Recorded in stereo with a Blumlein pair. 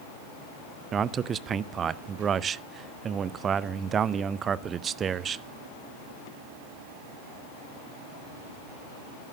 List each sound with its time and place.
0.9 s a man speaking: 25° right, 0.5 m